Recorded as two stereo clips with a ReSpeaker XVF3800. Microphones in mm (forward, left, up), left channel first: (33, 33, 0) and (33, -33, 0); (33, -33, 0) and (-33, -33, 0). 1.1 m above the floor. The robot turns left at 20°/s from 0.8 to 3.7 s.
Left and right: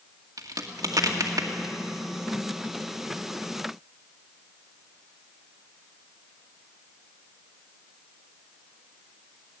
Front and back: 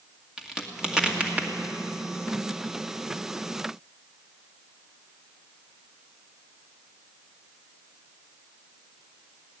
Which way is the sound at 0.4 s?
100° right.